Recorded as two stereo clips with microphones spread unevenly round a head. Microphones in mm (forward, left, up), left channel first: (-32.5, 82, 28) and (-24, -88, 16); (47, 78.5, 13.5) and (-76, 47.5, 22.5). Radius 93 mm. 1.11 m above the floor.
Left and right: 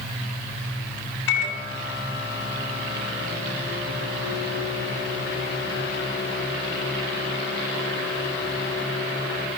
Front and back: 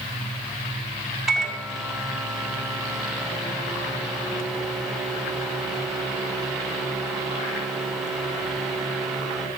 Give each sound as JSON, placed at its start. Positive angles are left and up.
{"t": 1.3, "sound": "a microwave", "azimuth_deg": 105, "distance_m": 5.5}